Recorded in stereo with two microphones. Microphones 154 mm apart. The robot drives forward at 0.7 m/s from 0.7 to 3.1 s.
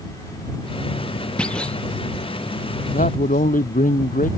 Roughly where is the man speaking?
Left.